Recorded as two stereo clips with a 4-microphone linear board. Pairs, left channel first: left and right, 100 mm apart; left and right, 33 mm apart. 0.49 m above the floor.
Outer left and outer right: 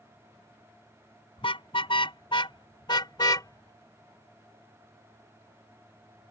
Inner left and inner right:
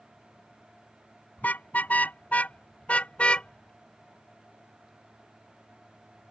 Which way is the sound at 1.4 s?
65° left (ahead or behind).